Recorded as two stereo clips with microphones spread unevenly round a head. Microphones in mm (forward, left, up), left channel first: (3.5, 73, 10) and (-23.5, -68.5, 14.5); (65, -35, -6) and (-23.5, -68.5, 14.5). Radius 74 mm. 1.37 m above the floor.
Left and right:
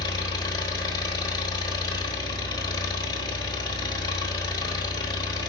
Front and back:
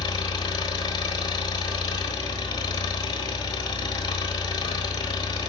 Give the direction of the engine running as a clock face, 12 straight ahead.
11 o'clock.